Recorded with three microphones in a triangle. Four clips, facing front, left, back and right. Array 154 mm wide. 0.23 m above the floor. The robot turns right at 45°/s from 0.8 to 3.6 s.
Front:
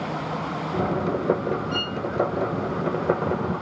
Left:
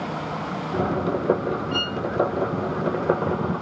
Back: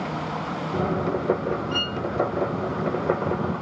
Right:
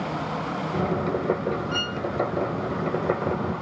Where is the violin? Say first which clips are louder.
Left 2 dB, even; 65° right, 1.7 m; by 2.0 s 55° right, 1.7 m.